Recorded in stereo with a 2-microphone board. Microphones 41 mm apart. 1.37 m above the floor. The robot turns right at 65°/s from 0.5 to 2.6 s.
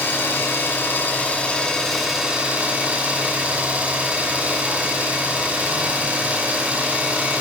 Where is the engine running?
80° left, 3 m; by 7.4 s 145° right, 3 m.